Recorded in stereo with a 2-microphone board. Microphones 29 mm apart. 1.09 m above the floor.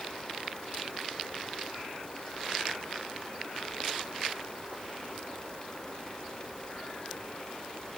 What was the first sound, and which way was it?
Only background noise.